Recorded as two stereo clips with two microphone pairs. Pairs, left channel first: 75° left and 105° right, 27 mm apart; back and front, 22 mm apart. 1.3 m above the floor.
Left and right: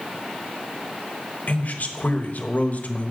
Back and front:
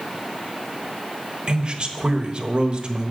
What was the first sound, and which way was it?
A man speaking, 40° left.